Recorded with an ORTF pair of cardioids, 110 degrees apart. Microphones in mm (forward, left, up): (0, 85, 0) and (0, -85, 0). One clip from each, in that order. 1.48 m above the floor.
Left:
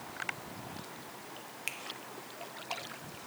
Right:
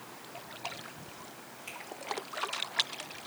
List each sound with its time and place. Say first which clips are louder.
1.7 s a finger snap: left 5 dB; 60° left, 0.8 m